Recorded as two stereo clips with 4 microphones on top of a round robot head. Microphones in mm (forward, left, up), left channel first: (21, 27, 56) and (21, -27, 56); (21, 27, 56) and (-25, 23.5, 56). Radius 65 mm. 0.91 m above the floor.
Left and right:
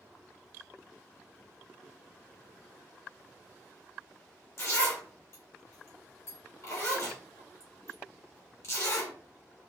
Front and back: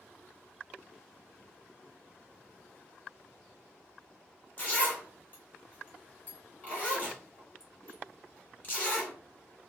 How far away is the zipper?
About 2.5 m.